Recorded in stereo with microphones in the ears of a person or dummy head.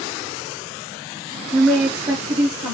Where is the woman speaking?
10° left (ahead or behind), 0.7 m; by 2.7 s 30° right (ahead or behind), 1.1 m.